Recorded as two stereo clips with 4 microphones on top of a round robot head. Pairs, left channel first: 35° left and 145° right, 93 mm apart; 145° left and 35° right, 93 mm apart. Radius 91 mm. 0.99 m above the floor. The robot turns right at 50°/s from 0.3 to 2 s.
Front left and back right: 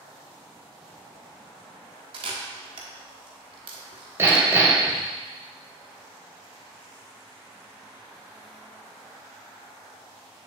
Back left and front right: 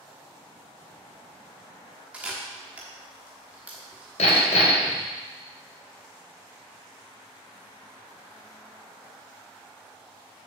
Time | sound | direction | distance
2.1 | a camera shutter | 115° right | 1.1 m
4.2 | hammering | 150° left | 1.3 m